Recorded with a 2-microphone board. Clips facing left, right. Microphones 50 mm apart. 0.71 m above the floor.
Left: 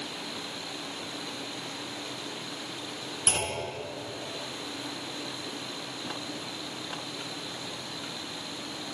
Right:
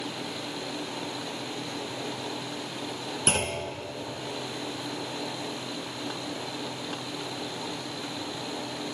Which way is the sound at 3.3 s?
40° right (ahead or behind).